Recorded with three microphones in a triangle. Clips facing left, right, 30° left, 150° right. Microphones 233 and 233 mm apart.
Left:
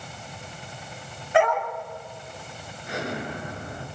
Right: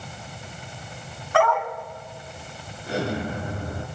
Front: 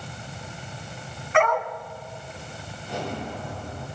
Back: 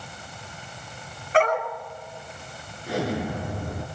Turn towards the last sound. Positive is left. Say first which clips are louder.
# right 5 dB, back 5 dB
turn(degrees=-150)